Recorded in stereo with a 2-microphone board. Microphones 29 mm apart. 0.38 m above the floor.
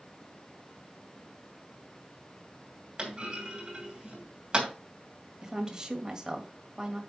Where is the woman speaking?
30° right (ahead or behind), 1.9 m.